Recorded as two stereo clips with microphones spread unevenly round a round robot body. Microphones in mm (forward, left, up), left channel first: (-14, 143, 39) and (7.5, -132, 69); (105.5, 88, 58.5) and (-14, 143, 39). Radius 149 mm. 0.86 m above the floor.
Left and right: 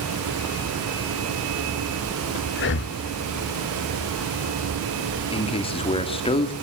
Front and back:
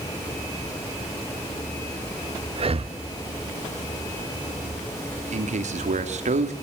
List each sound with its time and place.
2.5 s breathing: 130° left, 1.0 m
5.3 s a man speaking: 160° left, 2 m